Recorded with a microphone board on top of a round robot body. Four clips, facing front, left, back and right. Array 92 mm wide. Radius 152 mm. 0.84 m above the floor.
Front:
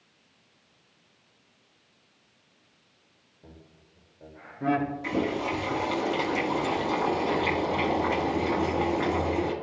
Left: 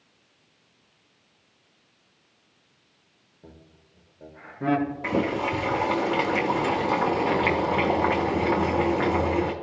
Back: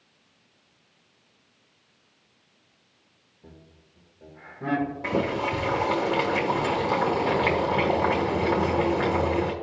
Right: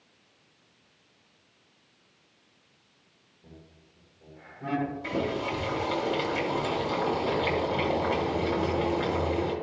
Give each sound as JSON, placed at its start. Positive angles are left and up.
{"t": 3.4, "sound": "laughter", "azimuth_deg": 80, "distance_m": 2.5}
{"t": 5.0, "sound": "boiling", "azimuth_deg": 125, "distance_m": 1.6}